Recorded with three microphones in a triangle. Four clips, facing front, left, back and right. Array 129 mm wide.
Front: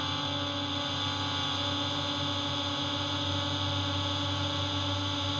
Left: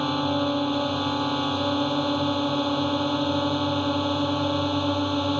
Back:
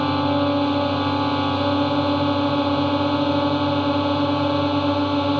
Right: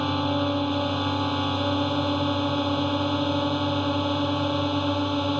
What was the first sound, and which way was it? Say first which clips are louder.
A drone: even, back 15 dB; 175° left.